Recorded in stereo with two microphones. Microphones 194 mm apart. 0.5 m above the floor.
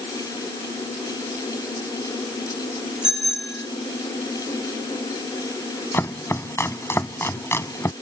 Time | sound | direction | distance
3.0 | a bicycle bell | 65° right (ahead or behind) | ?
5.9 | chopping | 10° left (ahead or behind) | ?